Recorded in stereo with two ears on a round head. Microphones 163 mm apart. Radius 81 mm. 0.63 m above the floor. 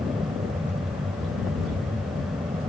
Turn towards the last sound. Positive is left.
turn(degrees=-20)  # may be behind; listen again after turning